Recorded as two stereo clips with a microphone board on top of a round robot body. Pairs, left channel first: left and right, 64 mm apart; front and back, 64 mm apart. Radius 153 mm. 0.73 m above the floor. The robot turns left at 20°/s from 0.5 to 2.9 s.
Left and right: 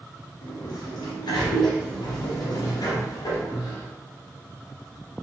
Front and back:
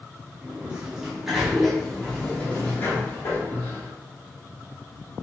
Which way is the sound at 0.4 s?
110° left.